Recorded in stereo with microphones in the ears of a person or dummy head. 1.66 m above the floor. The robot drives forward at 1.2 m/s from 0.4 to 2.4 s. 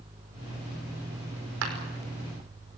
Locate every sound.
1.6 s a clap: 65° right (ahead or behind), 5 m